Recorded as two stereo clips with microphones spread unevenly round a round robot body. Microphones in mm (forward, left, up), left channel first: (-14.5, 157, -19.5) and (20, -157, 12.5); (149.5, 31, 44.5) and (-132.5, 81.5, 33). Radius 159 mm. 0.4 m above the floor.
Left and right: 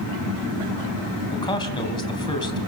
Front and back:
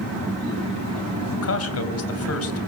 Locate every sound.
1.3 s a man speaking: 20° left, 3 m